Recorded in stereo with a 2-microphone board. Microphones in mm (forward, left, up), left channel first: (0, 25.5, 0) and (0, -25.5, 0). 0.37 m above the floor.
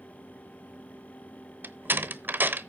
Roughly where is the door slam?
Right.